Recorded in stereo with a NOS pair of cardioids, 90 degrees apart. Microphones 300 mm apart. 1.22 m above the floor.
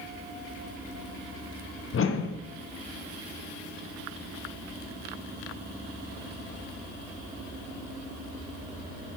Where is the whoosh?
45° left, 1.1 m.